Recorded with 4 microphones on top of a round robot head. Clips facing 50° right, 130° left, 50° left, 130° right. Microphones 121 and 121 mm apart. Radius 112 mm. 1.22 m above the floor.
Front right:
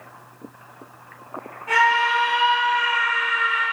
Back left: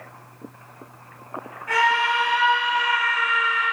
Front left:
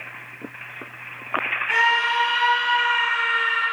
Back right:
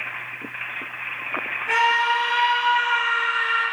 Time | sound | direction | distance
1.7 | a scream | 115° right | 5.5 m